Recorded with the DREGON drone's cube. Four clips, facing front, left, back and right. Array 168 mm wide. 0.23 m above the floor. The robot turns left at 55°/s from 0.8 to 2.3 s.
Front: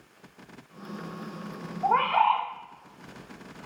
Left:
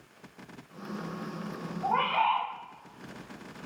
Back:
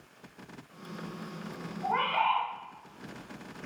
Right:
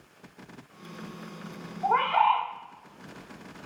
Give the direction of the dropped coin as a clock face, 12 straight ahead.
No dropped coin in this recording.